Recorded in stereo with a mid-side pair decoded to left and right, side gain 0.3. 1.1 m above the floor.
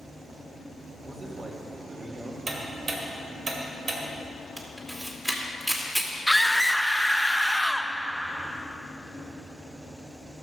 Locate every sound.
1.0 s a man speaking: 45° right, 3 m
2.5 s ticking: 65° right, 1.9 m
4.6 s a camera shutter: 10° right, 2 m
6.3 s a scream: 5° left, 0.9 m